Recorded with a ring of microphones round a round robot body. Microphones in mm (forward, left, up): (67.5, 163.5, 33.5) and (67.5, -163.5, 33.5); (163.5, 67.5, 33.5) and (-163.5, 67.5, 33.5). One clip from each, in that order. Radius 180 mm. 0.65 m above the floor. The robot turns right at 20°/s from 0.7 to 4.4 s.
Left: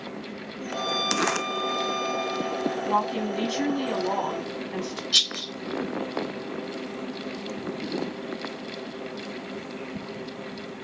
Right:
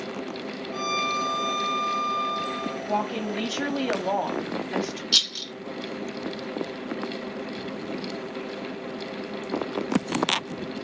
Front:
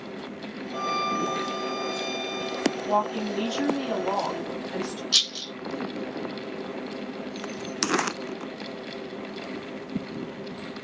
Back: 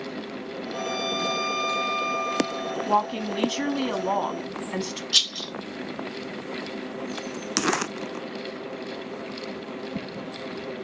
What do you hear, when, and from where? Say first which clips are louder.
0.7 s a violin: even, front 2 dB; 155° right, 2 m; by 2.8 s 115° right, 2 m
2.9 s a woman speaking: left 1 dB, back 4 dB; 170° left, 1.1 m; by 5.0 s 160° right, 1.1 m
5.1 s a rattle: even, back 1 dB; 45° right, 1.8 m